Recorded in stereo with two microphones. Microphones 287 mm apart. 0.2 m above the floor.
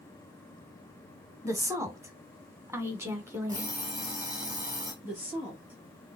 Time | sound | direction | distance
1.4 | a woman speaking | 10° right (ahead or behind) | 1.1 m
3.5 | an alarm clock | 15° right (ahead or behind) | 2.5 m
5.0 | a woman speaking | 5° right (ahead or behind) | 3.5 m